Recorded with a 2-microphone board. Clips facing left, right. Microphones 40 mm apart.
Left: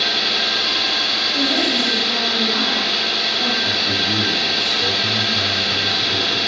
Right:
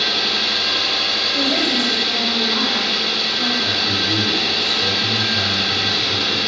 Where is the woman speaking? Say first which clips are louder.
Even; 20° right (ahead or behind), 1.0 m.